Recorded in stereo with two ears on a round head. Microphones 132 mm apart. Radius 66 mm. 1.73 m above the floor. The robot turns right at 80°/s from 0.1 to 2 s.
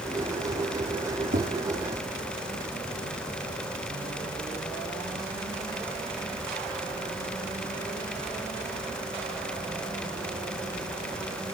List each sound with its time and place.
1.3 s tapping: 60° right (ahead or behind), 4.5 m; by 1.5 s 75° right (ahead or behind), 4.5 m